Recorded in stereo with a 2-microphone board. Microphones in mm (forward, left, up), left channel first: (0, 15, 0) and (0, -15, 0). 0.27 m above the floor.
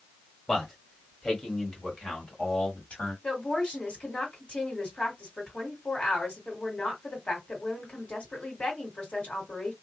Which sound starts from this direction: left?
A woman speaking, at 3.2 s.